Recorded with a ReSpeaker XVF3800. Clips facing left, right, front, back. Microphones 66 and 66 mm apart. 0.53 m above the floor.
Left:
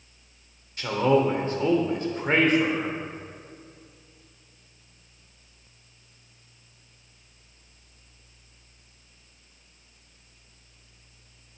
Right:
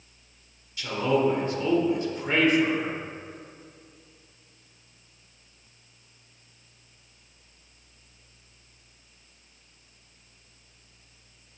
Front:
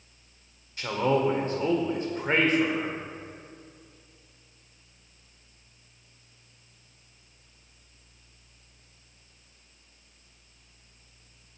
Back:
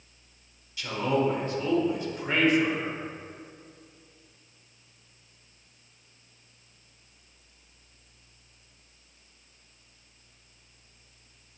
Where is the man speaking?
45° left, 1.3 m.